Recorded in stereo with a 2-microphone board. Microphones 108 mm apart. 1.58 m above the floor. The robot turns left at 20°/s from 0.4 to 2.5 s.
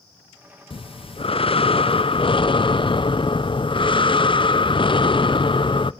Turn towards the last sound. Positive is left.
turn(degrees=65)